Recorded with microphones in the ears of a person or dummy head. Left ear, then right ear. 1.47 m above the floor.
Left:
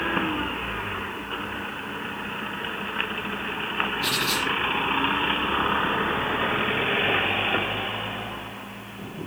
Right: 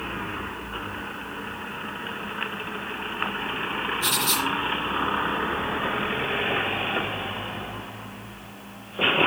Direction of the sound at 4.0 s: 30° right (ahead or behind).